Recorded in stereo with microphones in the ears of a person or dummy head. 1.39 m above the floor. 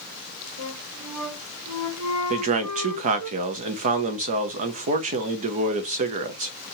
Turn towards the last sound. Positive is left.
turn(degrees=-45)  # may be behind; listen again after turning